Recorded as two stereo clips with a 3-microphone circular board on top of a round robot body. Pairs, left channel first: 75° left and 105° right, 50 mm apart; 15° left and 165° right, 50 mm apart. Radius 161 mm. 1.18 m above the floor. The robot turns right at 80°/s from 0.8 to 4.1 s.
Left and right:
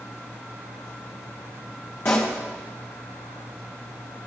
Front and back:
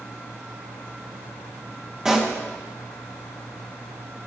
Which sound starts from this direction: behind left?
A pop, at 2.0 s.